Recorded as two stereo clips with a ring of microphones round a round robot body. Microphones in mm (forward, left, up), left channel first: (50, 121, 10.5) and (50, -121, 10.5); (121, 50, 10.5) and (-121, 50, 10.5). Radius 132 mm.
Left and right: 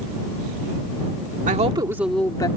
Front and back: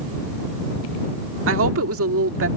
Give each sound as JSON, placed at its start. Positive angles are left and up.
{"t": 1.5, "sound": "a woman speaking", "azimuth_deg": -150}